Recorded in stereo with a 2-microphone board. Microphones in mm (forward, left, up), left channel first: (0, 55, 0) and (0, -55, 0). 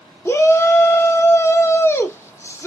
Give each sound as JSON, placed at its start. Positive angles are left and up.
{"t": 0.2, "sound": "a shout", "side_deg": 25, "distance_m": 0.9}